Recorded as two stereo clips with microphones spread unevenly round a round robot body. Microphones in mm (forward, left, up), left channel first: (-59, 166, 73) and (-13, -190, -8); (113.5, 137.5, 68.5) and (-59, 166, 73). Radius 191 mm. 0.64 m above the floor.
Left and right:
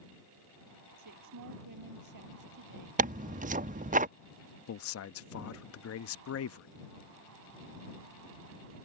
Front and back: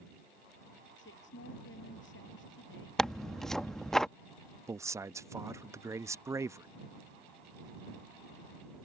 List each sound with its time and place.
1.0 s a woman speaking: 35° right; by 2.9 s 40° right
3.0 s tearing paper: 95° right
4.7 s a man speaking: 115° left